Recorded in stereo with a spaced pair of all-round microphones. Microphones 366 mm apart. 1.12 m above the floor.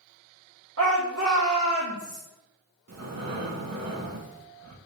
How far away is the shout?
About 0.7 m.